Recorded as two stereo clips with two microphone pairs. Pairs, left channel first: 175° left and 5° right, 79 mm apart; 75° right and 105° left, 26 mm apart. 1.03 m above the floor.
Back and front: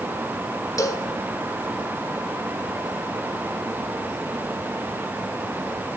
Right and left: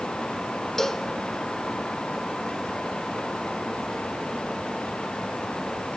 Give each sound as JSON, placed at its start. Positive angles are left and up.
{"t": 0.8, "sound": "a cowbell", "azimuth_deg": -140, "distance_m": 0.6}